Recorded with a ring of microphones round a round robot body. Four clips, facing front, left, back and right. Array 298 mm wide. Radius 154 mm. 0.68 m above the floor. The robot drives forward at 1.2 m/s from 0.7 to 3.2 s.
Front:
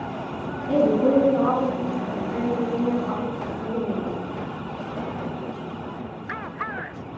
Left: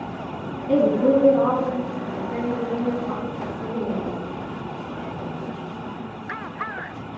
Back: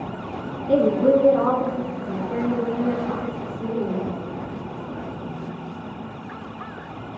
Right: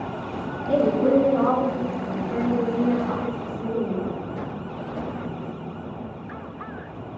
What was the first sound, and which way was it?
A woman speaking, 105° left.